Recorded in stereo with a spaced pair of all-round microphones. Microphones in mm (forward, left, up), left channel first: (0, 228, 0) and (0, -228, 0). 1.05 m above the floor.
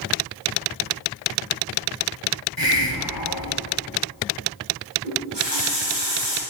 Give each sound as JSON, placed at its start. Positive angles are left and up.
{"t": 2.6, "sound": "a hiss", "side_deg": 50, "distance_m": 1.3}
{"t": 5.0, "sound": "a running tap", "side_deg": -70, "distance_m": 5.5}